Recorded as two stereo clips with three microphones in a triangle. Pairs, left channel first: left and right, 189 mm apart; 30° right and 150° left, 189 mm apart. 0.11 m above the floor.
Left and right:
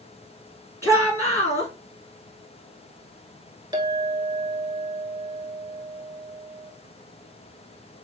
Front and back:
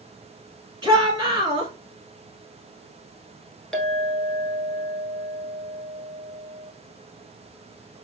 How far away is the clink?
About 1.0 m.